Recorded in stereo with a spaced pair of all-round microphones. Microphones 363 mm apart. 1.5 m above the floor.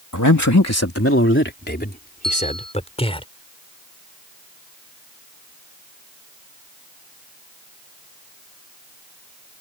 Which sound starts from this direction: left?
A man speaking, at 0.1 s.